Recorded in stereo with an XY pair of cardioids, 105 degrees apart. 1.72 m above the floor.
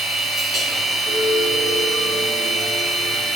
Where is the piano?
50° right, 1.7 m.